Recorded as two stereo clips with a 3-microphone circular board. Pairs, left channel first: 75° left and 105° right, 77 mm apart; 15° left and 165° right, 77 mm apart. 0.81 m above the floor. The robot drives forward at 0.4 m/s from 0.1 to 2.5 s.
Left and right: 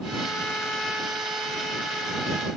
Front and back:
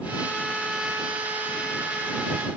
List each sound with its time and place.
Only background noise.